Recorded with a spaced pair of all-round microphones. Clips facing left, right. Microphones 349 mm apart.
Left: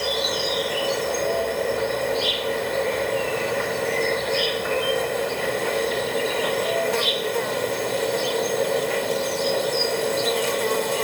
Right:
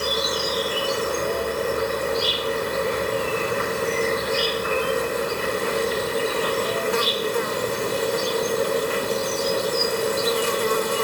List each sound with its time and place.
0.0 s an insect: 20° right (ahead or behind)